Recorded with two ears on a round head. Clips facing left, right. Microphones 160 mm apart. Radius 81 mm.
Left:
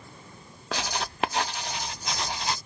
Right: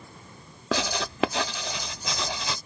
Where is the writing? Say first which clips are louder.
Right 4 dB; 75° right (ahead or behind).